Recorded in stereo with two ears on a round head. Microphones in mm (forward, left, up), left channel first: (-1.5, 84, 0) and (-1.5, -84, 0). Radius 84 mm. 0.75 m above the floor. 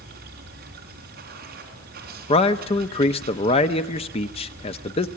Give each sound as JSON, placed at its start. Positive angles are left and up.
{"t": 0.0, "sound": "running water", "side_deg": -55, "distance_m": 4.0}
{"t": 2.3, "sound": "a man speaking", "side_deg": 30, "distance_m": 0.8}